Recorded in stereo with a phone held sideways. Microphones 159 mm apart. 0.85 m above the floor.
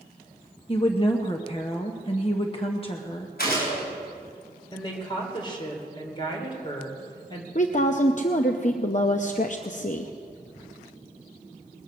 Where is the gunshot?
85° left, 5.5 m.